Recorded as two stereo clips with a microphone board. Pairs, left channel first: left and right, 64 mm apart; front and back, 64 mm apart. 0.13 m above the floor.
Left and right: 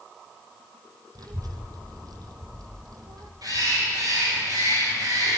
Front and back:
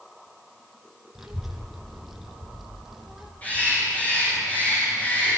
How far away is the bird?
About 9.5 m.